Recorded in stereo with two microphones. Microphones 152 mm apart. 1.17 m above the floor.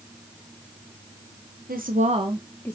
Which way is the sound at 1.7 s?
65° right (ahead or behind).